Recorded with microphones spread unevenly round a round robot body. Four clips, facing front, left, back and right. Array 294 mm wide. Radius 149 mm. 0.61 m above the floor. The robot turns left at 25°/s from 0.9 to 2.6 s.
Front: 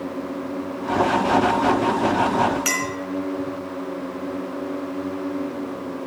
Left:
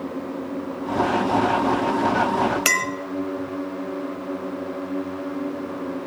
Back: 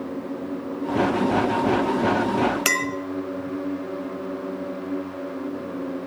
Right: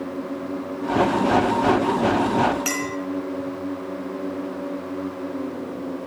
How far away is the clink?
About 1.5 m.